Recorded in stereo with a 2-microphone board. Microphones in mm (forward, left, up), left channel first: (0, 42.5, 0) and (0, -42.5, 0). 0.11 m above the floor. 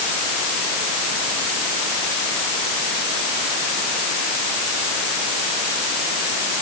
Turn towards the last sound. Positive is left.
No sound to turn to.